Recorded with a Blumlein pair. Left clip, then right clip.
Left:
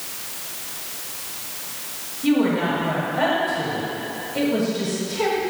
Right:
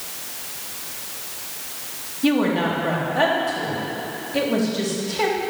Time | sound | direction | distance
2.2 | a woman speaking | 65° right | 3.5 m